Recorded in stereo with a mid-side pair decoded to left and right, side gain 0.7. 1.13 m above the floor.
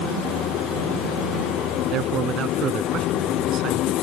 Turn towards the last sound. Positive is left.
turn(degrees=-45)